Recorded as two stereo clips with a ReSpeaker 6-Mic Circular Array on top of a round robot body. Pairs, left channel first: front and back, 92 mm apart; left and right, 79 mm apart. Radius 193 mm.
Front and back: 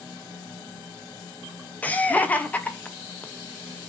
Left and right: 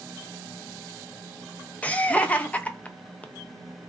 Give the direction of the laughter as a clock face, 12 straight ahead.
10 o'clock.